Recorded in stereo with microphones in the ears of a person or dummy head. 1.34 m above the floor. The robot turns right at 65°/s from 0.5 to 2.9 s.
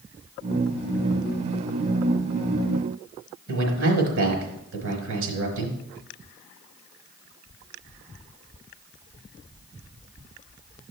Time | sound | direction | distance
3.5 | a man speaking | 80° right | 4.5 m